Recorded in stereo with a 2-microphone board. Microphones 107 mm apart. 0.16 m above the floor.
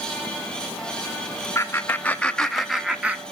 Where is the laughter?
25° left (ahead or behind), 1.3 m; by 3.2 s 15° right (ahead or behind), 1.3 m.